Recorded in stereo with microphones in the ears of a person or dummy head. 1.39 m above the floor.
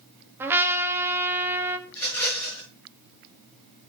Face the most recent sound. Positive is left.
turn(degrees=10)  # may be behind; listen again after turning